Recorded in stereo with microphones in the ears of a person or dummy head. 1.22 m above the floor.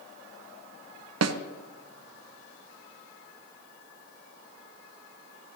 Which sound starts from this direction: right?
A snare drum, at 1.2 s.